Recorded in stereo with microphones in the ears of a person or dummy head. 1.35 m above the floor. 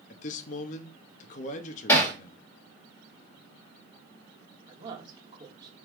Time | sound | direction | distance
0.1 | a man speaking | 45° left (ahead or behind) | 0.7 m
1.9 | hammering | 15° left (ahead or behind) | 1.8 m
4.7 | a woman speaking | 25° right (ahead or behind) | 1.6 m